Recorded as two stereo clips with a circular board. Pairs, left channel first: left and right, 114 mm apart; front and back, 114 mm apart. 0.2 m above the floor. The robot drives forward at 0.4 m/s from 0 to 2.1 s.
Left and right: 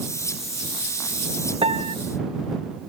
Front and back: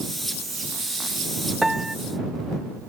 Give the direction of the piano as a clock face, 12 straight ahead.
3 o'clock.